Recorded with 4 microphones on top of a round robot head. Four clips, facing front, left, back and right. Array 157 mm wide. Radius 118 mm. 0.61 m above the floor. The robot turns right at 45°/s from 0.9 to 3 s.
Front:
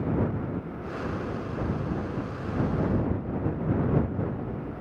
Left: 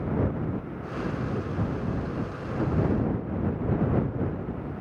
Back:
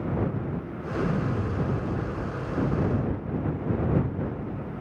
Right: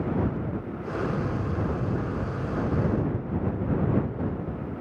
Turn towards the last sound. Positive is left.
turn(degrees=-85)